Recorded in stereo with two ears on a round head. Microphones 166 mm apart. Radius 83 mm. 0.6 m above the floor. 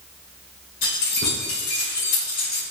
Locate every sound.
0.8 s keys jangling: 50° left (ahead or behind), 1.5 m; by 2.6 s 75° left (ahead or behind), 2 m